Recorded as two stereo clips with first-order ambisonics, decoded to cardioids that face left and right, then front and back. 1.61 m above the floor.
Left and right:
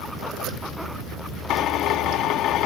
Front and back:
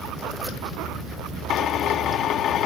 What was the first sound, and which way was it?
A drill, 50° left.